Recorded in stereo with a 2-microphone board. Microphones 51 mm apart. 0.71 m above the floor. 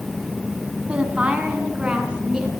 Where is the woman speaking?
25° right (ahead or behind), 5 m; by 2.5 s 20° right (ahead or behind), 6.5 m.